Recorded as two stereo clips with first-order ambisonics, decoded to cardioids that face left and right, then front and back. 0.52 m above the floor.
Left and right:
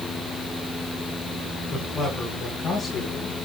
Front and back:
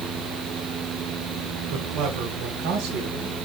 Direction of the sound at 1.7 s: Straight behind.